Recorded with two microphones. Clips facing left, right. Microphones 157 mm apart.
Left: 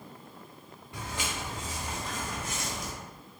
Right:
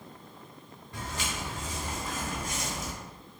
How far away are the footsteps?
About 1.7 m.